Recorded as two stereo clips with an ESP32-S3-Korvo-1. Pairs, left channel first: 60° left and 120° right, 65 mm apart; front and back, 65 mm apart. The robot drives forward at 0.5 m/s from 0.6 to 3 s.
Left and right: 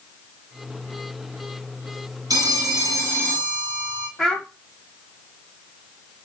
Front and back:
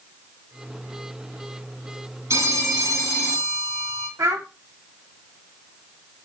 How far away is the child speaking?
About 1.0 m.